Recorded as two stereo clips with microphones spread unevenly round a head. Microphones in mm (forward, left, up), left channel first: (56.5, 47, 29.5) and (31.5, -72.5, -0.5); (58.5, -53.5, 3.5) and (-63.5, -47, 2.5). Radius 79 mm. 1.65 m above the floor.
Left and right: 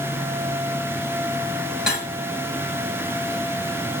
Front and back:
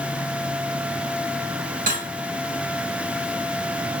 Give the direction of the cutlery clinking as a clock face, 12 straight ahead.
6 o'clock.